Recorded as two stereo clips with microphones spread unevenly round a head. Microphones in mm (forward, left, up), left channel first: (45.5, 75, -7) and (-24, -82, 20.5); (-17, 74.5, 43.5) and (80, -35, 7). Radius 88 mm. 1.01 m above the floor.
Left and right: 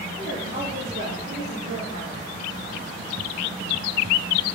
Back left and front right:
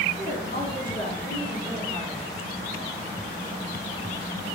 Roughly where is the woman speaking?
Behind.